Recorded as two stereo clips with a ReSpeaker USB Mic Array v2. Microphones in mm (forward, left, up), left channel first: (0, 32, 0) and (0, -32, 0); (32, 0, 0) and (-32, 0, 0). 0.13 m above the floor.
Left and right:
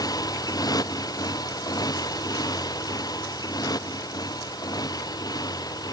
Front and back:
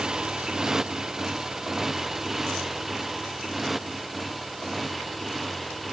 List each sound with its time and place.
0.0 s a motorcycle: 100° left; by 5.9 s 90° left